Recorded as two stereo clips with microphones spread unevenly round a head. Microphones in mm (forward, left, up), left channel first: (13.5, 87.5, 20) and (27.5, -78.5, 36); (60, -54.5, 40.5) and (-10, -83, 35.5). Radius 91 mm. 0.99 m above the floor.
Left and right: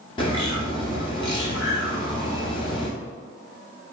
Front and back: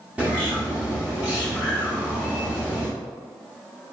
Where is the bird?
125° left, 0.5 m.